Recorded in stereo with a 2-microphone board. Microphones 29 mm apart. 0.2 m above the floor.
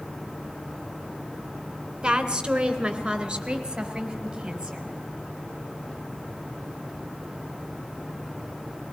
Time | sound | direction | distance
2.0 | a woman speaking | 25° right (ahead or behind) | 2.5 m